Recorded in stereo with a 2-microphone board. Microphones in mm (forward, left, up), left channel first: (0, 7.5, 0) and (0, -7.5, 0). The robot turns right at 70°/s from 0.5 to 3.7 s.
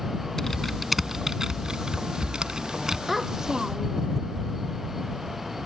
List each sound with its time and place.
0.4 s typing on a keyboard: 25° left (ahead or behind); by 3.0 s 30° right (ahead or behind)
3.1 s a child speaking: 175° right; by 4.1 s 130° right